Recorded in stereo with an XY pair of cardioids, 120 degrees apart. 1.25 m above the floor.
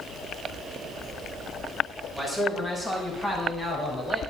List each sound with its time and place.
2.1 s a man speaking: 15° left, 6 m; by 4.2 s 25° left, 4.5 m